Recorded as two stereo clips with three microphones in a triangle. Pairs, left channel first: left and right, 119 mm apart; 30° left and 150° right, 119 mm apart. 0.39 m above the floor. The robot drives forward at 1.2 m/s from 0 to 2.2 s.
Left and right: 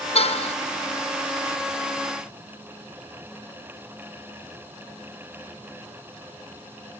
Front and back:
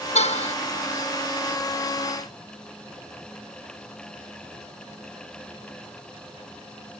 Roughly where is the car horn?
Ahead left.